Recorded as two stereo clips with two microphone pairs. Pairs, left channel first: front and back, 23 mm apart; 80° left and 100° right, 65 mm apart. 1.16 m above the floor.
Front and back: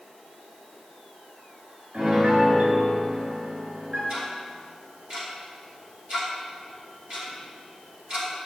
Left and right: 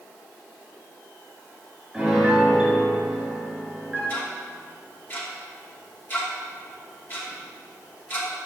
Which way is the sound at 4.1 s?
135° left.